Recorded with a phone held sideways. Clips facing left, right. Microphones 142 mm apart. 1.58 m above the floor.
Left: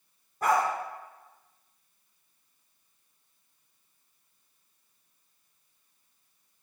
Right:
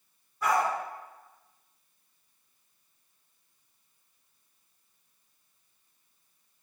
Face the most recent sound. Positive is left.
turn(degrees=45)  # may be behind; listen again after turning